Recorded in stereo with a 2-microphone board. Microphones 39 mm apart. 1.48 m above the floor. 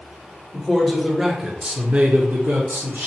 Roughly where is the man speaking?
Centre.